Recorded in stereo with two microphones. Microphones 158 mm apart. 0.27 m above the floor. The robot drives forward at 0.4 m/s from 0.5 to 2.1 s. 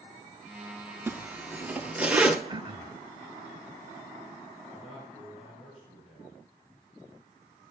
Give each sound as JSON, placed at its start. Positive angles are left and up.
{"t": 1.1, "sound": "a zipper", "side_deg": -15, "distance_m": 0.5}
{"t": 2.5, "sound": "throat clearing", "side_deg": -30, "distance_m": 0.8}
{"t": 4.7, "sound": "a man speaking", "side_deg": -5, "distance_m": 4.5}